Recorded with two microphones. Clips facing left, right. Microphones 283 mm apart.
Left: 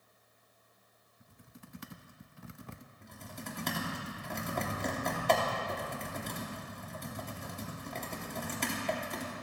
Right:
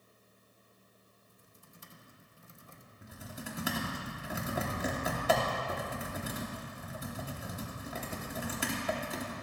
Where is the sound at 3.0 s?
5° right (ahead or behind), 2.5 m.